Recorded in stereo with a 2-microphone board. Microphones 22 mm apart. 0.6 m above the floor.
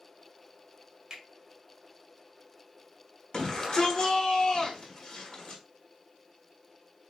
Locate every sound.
1.1 s a finger snap: 25° right (ahead or behind), 1.7 m
3.3 s a shout: 25° left (ahead or behind), 1.3 m